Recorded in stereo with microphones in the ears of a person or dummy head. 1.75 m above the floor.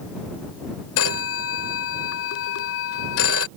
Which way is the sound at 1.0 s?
70° left (ahead or behind).